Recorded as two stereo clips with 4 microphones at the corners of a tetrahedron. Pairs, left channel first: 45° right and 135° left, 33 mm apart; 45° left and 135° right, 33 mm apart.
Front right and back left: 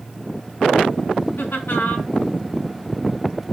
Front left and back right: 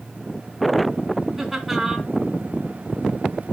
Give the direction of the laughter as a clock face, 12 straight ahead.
2 o'clock.